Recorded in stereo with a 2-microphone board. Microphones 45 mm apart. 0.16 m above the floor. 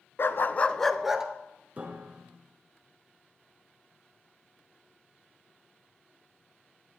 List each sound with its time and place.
0.2 s a dog barking: 55° left (ahead or behind), 0.8 m; by 1.3 s 10° right (ahead or behind), 1.2 m
1.8 s a piano: 30° right (ahead or behind), 2 m